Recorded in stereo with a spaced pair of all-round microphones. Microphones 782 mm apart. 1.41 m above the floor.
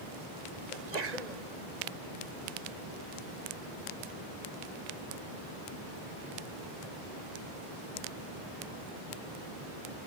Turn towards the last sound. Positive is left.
turn(degrees=-55)  # may be behind; listen again after turning